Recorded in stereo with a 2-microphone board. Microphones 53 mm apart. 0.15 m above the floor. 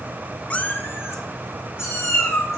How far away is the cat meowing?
About 0.6 m.